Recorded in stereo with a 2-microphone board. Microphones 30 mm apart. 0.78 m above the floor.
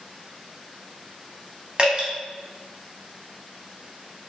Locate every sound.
1.8 s dripping: 35° right (ahead or behind), 0.8 m